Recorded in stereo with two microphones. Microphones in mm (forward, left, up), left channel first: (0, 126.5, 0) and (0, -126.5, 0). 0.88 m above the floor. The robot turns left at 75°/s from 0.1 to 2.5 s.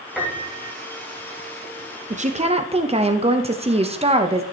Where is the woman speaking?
25° right (ahead or behind), 0.7 m; by 4.4 s 20° right (ahead or behind), 0.7 m.